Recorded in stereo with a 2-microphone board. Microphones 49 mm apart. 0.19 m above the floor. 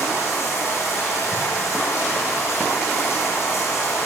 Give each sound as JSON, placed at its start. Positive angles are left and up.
{"t": 0.0, "sound": "running water", "side_deg": 80, "distance_m": 9.5}